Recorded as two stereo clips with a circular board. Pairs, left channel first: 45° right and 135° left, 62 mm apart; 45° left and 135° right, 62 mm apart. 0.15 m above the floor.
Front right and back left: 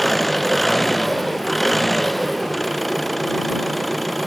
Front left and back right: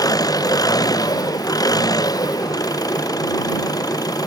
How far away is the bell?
No bell in this recording.